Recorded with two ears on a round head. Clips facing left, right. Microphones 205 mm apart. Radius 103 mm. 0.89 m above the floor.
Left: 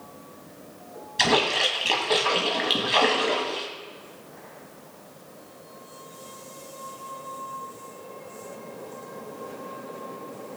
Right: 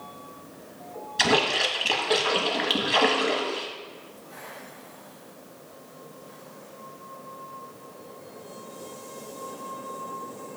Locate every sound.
1.2 s a splash: centre (ahead or behind), 2.0 m